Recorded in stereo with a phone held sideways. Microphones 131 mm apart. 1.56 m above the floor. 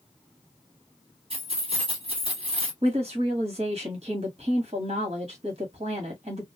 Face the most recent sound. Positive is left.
turn(degrees=-50)  # may be behind; listen again after turning